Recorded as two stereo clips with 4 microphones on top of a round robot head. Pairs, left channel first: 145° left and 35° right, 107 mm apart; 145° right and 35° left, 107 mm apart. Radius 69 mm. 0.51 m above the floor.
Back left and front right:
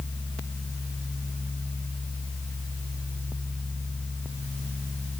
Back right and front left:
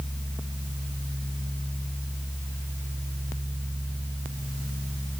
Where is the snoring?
I don't hear snoring.